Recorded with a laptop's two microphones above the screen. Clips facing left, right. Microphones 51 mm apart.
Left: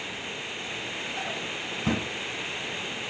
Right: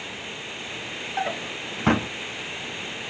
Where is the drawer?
50° right (ahead or behind), 0.8 m.